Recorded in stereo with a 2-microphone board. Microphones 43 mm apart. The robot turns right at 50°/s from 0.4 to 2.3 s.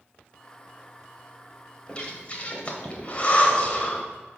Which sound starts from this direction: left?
Breathing, at 1.9 s.